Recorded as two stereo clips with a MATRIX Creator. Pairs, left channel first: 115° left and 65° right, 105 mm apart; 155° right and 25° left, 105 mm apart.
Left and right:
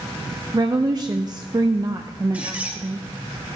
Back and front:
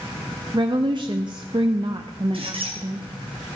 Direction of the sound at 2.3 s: 5° left.